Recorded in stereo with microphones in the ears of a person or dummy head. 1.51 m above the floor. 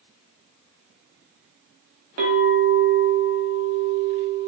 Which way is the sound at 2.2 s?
40° right (ahead or behind).